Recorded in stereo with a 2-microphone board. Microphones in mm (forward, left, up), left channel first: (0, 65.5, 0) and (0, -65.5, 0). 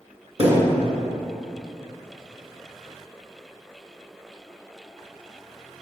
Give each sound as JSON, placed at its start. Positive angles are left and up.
{"t": 0.4, "sound": "a thud", "side_deg": -50, "distance_m": 2.5}